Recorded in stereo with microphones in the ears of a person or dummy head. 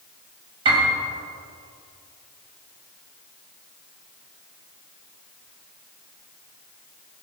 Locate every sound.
0.7 s a piano: 30° right (ahead or behind), 3 m